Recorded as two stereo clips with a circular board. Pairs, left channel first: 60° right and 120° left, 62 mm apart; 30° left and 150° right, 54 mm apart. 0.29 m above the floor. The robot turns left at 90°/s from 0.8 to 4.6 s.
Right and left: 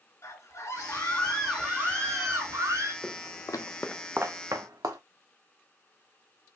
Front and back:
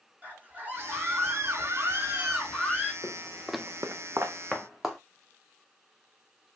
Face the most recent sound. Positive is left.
turn(degrees=125)